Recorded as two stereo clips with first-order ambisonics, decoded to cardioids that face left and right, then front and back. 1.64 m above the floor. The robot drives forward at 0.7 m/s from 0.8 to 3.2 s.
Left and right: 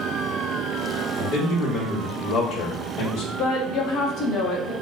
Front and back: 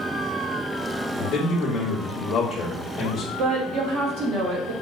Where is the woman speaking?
140° left, 0.8 m.